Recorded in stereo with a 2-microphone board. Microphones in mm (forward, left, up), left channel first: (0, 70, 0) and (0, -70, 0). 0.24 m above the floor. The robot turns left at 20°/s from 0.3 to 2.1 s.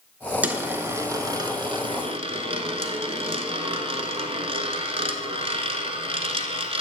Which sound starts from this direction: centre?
A dropped coin, at 0.4 s.